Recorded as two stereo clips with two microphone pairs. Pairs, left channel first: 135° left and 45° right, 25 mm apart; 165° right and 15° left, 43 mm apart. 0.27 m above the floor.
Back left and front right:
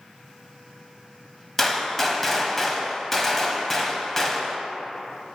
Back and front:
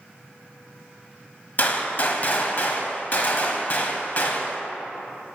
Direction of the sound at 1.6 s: 150° right.